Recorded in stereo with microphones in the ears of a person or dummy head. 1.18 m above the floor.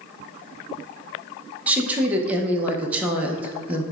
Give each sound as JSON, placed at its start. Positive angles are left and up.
{"t": 1.7, "sound": "a woman speaking", "side_deg": -15, "distance_m": 0.5}